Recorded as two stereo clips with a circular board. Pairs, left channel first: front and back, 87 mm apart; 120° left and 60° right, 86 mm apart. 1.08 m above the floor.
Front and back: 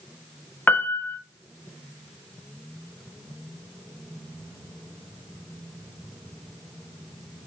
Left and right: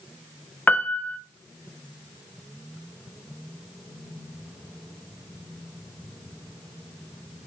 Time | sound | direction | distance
0.7 | a piano | 60° left | 1.0 m